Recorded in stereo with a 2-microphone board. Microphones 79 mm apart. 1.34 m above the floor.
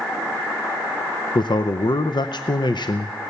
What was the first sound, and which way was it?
A man speaking, 70° left (ahead or behind).